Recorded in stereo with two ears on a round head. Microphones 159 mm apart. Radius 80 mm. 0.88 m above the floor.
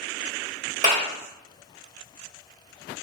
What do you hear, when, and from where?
0.8 s a clap: 35° right (ahead or behind), 1.9 m